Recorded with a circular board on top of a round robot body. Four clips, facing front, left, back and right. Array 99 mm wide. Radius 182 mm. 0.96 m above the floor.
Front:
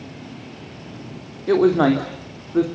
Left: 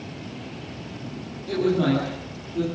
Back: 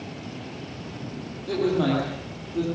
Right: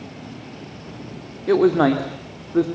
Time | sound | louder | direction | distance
1.5 | a man speaking | right 6 dB, front 8 dB | 50° right | 2.5 m